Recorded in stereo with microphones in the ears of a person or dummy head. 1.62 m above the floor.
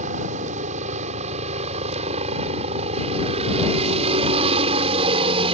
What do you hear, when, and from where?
0.0 s a helicopter: 45° right (ahead or behind); by 5.5 s 30° right (ahead or behind)